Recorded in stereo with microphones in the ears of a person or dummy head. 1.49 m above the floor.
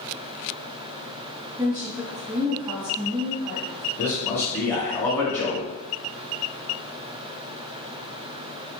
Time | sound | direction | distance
1.6 | a woman speaking | 20° right (ahead or behind) | 1.5 m
4.0 | a man speaking | 10° left (ahead or behind) | 0.6 m